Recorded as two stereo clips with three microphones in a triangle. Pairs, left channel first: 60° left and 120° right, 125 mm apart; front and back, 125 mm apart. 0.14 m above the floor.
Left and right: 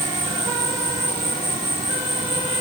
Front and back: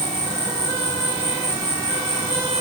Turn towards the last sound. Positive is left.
turn(degrees=-125)